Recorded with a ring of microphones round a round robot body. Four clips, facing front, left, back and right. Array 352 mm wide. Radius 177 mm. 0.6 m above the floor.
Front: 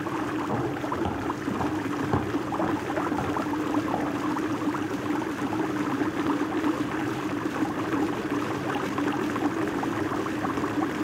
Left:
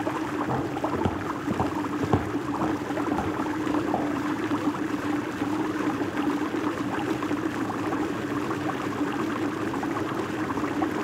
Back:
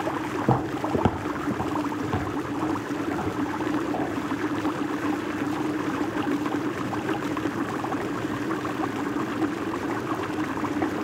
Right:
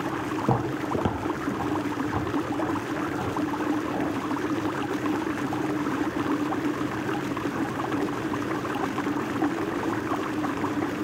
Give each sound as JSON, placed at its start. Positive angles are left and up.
{"t": 0.4, "sound": "footsteps", "azimuth_deg": -145, "distance_m": 1.1}